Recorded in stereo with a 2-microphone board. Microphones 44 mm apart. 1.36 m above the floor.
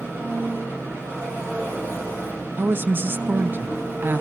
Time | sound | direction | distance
0.0 | an engine running | 80° right | 8 m
2.6 | a woman speaking | 55° right (ahead or behind) | 0.6 m